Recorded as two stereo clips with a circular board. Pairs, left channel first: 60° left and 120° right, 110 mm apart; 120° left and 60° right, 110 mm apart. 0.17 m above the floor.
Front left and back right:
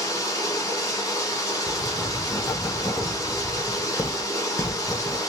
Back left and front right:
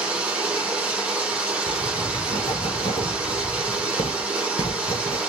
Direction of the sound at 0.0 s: 15° left.